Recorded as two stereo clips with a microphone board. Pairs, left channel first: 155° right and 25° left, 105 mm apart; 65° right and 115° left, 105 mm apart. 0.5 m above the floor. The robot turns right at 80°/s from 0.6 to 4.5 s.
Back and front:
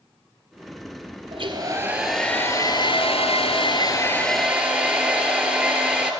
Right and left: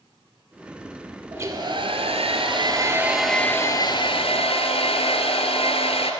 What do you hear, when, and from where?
1.3 s a hair dryer: 50° left, 1.6 m; by 6.1 s 55° right, 1.6 m